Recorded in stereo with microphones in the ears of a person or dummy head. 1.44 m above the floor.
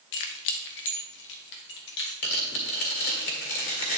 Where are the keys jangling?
60° left (ahead or behind), 0.7 m.